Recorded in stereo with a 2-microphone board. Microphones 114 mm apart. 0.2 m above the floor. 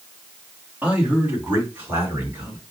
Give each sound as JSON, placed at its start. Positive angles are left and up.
{"t": 0.8, "sound": "a man speaking", "side_deg": -15, "distance_m": 1.7}